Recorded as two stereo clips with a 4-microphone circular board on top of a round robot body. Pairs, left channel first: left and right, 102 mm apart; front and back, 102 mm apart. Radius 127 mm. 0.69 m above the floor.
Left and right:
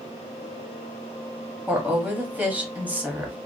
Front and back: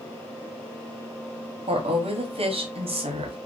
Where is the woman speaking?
165° right, 1.0 m.